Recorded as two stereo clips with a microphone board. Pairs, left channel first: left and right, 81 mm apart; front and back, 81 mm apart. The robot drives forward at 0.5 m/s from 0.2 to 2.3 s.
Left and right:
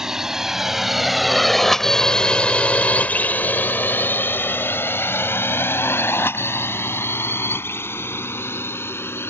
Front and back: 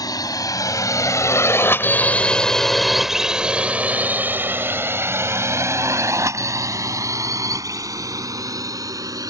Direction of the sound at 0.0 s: 10° right.